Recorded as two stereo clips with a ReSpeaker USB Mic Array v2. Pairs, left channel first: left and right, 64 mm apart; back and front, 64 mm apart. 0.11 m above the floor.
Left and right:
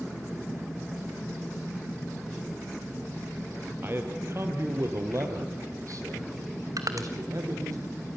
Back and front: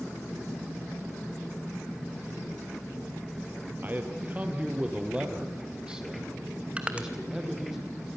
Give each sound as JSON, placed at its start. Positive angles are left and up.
{"t": 3.8, "sound": "a man speaking", "azimuth_deg": -50, "distance_m": 2.0}
{"t": 6.8, "sound": "crushing", "azimuth_deg": -70, "distance_m": 1.5}